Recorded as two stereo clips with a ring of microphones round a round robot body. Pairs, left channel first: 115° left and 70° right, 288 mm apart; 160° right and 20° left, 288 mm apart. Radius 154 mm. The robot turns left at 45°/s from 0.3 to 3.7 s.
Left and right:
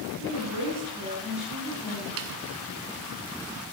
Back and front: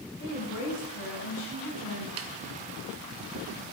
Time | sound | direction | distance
0.2 | a woman speaking | 105° right | 7.5 m
2.2 | a snare drum | 20° right | 1.1 m